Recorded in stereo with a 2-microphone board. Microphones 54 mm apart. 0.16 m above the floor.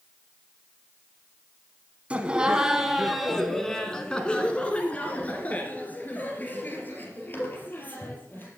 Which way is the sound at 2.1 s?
20° right (ahead or behind).